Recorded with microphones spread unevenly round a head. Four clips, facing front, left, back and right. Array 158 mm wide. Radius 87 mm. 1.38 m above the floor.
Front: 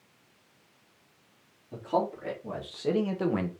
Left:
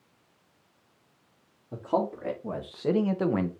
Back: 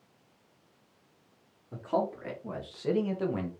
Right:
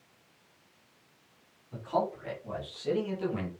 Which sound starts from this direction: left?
A man speaking, at 1.7 s.